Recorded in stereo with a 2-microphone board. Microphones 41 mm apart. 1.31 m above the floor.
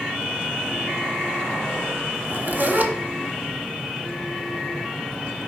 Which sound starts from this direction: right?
A zipper, at 2.1 s.